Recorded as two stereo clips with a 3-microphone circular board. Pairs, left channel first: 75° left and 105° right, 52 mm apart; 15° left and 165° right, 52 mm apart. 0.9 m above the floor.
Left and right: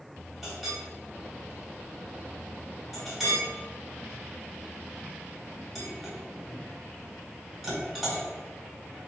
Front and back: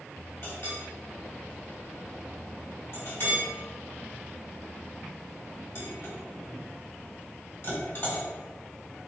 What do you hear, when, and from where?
0.4 s a clink: 15° right, 1.7 m